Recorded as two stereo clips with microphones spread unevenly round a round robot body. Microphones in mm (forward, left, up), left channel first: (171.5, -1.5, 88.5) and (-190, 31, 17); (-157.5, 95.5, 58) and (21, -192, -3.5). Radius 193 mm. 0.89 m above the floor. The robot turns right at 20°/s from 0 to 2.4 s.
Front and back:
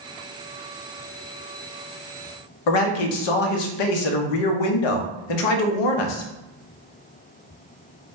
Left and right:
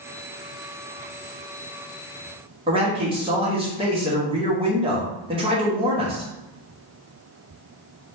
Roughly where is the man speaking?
Ahead.